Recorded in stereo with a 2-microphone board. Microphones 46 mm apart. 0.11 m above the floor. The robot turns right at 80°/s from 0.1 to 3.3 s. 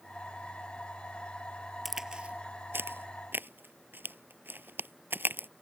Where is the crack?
Centre (ahead or behind); by 5.5 s 50° right (ahead or behind).